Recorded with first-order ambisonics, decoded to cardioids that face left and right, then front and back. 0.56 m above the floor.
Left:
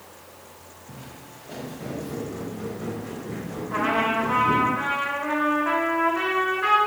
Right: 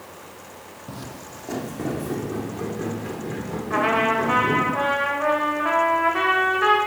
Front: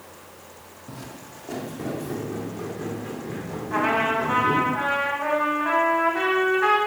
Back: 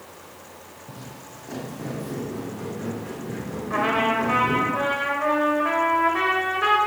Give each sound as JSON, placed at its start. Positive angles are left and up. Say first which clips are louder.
{"t": 0.9, "sound": "footsteps", "louder": "right 6 dB, front 3 dB", "azimuth_deg": -75, "distance_m": 1.2}
{"t": 3.7, "sound": "a trumpet", "louder": "right 3 dB, even", "azimuth_deg": -125, "distance_m": 3.0}